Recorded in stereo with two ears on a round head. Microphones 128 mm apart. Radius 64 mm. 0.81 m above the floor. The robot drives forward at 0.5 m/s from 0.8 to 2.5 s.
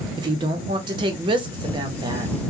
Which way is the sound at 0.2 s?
30° right (ahead or behind).